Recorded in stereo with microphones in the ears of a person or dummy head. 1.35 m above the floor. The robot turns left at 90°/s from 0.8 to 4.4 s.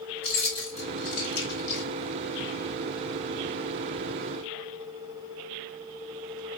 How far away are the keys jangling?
About 4 m.